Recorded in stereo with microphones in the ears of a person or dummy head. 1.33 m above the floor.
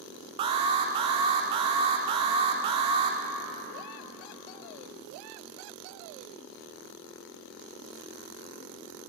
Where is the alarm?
30° right (ahead or behind), 0.5 m.